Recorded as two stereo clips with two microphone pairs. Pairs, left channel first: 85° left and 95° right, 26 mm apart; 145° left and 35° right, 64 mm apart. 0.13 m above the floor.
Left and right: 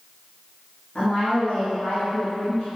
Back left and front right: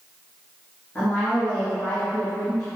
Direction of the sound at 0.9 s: 85° left.